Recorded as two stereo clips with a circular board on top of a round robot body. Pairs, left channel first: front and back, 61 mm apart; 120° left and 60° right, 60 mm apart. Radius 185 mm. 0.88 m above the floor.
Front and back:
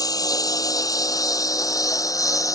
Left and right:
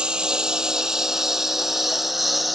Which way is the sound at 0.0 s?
15° left.